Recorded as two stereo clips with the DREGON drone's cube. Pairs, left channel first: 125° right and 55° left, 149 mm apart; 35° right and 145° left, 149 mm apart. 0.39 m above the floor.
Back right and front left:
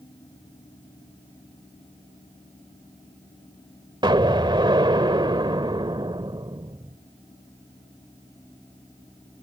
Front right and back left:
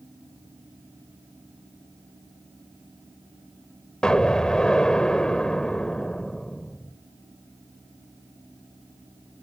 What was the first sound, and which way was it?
An explosion, 45° left.